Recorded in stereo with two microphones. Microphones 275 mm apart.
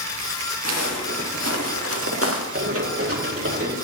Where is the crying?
No crying in this recording.